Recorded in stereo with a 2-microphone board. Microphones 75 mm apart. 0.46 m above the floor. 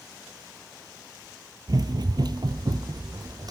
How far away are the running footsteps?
About 0.7 m.